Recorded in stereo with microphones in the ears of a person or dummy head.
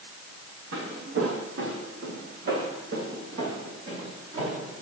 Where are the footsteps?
70° right (ahead or behind), 3.5 m; by 4.8 s 40° right (ahead or behind), 4 m.